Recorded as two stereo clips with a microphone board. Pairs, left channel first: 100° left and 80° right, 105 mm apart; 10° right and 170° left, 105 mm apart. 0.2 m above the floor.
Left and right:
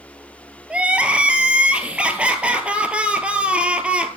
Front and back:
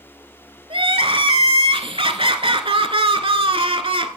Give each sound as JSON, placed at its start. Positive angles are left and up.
{"t": 0.7, "sound": "crying", "azimuth_deg": -160, "distance_m": 0.9}